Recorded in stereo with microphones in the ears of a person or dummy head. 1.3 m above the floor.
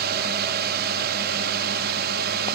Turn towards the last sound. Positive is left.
turn(degrees=-50)  # may be behind; listen again after turning